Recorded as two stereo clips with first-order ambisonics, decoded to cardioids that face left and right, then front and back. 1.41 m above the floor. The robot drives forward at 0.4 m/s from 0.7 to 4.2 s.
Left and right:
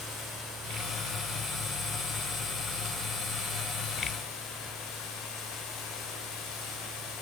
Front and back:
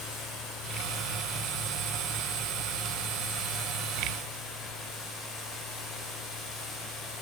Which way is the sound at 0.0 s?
45° left.